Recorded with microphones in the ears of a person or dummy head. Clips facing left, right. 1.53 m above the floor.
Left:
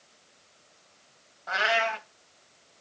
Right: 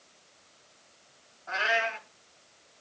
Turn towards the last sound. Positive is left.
turn(degrees=55)  # may be behind; listen again after turning